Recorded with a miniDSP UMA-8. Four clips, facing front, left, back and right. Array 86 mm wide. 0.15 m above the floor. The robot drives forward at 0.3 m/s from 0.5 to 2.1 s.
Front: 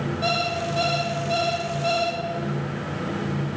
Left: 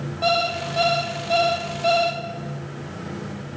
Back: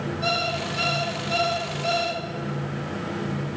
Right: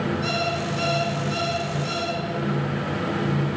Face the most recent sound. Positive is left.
turn(degrees=75)